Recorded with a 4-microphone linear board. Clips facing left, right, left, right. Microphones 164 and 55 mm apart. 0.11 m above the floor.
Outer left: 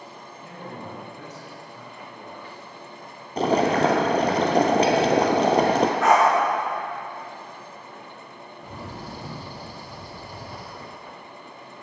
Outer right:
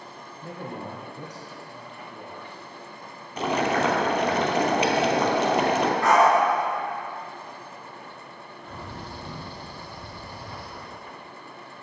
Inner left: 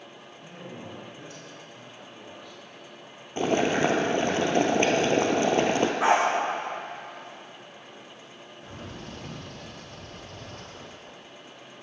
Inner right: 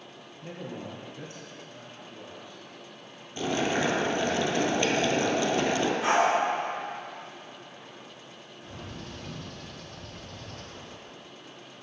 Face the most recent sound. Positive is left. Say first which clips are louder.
# outer left 2 dB, inner left 1 dB
turn(degrees=40)  # may be behind; listen again after turning